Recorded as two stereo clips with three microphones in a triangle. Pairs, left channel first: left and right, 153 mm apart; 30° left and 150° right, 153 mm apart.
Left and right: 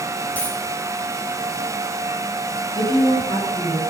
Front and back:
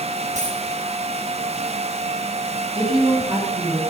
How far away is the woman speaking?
About 5.5 m.